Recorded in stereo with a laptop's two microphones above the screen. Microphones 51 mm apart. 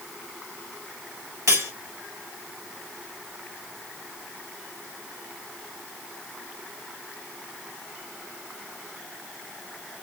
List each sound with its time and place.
1.5 s cutlery clinking: 65° right (ahead or behind), 1.2 m